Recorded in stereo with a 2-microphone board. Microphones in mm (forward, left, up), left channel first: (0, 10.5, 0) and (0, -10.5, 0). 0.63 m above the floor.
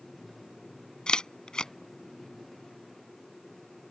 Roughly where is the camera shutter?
Left.